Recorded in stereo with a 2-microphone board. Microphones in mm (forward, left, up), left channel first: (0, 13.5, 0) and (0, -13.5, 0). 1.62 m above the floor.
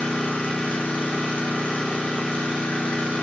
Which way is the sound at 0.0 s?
60° left (ahead or behind).